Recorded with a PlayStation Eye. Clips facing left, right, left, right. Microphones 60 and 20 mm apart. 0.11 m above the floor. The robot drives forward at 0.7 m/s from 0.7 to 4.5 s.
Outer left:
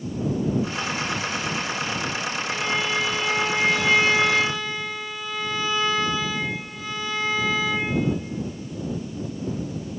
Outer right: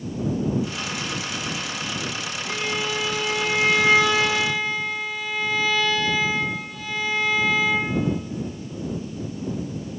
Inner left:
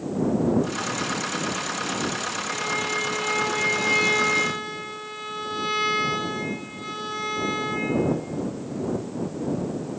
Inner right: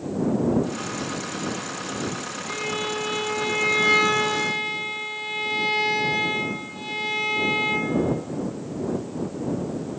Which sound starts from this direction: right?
A violin, at 2.5 s.